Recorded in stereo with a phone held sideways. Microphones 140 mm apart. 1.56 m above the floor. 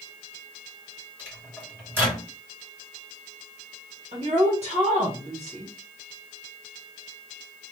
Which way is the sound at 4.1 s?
50° right (ahead or behind).